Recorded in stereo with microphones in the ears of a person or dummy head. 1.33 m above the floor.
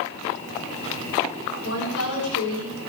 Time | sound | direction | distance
1.6 | a woman speaking | 70° left (ahead or behind) | 6.5 m